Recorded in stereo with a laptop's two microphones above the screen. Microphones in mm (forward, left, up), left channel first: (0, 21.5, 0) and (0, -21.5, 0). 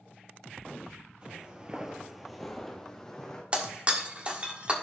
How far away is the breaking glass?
About 1.6 m.